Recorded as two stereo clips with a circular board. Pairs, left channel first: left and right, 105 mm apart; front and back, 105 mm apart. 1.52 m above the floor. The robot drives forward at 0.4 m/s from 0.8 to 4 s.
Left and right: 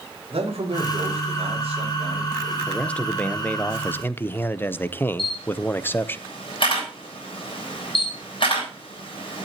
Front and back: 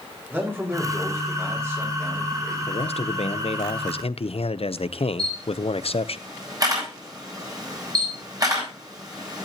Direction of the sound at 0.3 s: 110° right.